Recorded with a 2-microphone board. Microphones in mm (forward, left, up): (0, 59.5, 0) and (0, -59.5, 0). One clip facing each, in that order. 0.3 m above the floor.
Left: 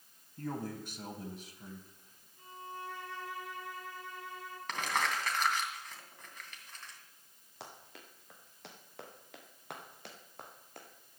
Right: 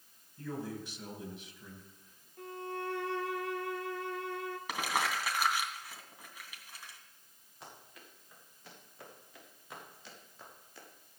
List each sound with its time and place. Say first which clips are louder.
0.4 s a man speaking: left 1 dB; 50° left (ahead or behind), 2.5 m; by 2.3 s 35° left (ahead or behind), 2.5 m
2.4 s a violin: right 6 dB; 75° right (ahead or behind), 1.3 m
4.7 s crumpling: left 1 dB; 10° right (ahead or behind), 2.5 m
7.6 s running footsteps: left 2 dB; 85° left, 5 m; by 10.9 s 55° left (ahead or behind), 4 m